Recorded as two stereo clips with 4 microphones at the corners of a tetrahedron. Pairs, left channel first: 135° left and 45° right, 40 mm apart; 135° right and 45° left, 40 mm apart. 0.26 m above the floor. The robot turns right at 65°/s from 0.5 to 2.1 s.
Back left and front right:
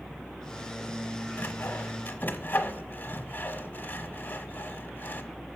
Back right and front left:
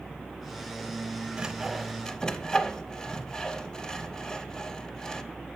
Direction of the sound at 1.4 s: 110° left.